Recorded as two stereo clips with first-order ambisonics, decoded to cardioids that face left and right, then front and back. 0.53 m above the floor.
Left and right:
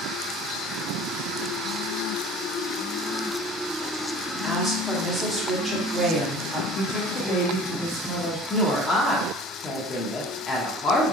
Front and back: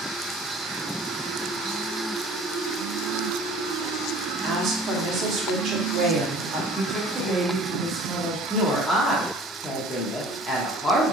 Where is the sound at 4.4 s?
175° right, 0.9 m.